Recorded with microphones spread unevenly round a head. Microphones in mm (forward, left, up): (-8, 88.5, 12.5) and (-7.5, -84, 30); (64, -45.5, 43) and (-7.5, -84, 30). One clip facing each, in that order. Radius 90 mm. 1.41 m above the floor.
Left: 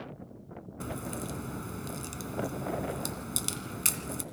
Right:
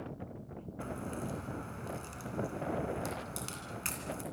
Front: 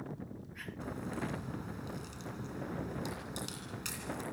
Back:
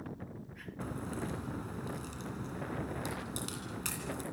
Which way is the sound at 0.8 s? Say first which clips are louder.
Left 2 dB, back 1 dB; 135° left.